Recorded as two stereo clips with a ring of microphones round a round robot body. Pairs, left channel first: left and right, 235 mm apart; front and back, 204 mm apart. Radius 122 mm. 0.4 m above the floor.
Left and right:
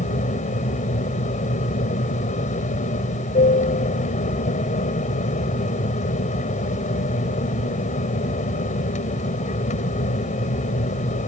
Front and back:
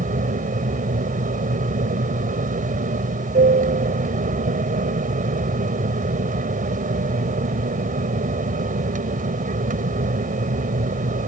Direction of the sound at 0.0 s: 140° left.